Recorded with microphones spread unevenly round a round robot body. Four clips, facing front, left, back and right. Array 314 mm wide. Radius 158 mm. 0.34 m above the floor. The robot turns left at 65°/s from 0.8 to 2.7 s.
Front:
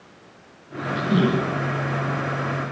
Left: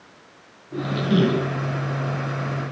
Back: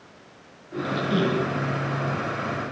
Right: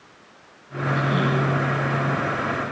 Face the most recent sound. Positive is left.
turn(degrees=-50)